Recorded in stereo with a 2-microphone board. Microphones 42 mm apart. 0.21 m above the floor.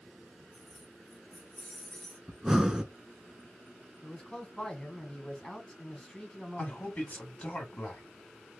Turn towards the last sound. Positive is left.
turn(degrees=35)  # may be behind; listen again after turning